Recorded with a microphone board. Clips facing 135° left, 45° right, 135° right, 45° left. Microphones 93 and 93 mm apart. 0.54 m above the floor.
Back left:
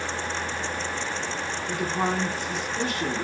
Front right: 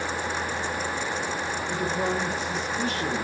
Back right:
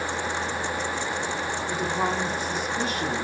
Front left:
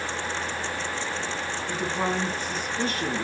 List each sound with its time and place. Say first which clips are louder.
1.7 s a woman speaking: back left 1 dB, even; 150° left, 4.5 m